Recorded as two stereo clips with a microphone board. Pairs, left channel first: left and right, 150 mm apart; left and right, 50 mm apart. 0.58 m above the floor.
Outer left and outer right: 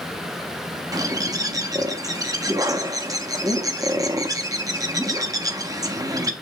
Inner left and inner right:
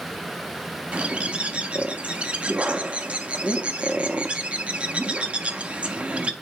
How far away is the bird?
About 0.7 m.